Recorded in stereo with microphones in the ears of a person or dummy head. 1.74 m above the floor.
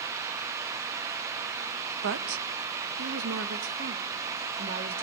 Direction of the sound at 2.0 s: 70° right (ahead or behind).